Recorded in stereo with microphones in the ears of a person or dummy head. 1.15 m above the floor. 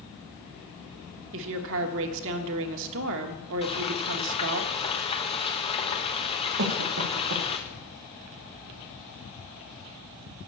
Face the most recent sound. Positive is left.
turn(degrees=-65)  # may be behind; listen again after turning